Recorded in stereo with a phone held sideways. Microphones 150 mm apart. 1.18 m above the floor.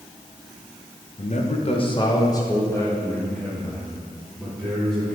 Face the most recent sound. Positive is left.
turn(degrees=0)  # may be behind; listen again after turning